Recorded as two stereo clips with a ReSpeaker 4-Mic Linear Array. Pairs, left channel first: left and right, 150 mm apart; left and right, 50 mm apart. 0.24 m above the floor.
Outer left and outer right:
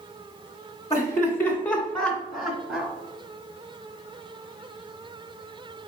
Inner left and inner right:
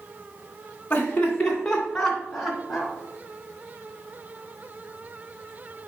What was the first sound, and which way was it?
Laughter, 20° left (ahead or behind).